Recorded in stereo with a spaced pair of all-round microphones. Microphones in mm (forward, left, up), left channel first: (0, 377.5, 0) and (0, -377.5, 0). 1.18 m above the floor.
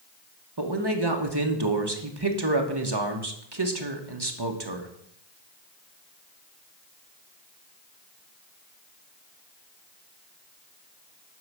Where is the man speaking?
30° right (ahead or behind), 1.3 m.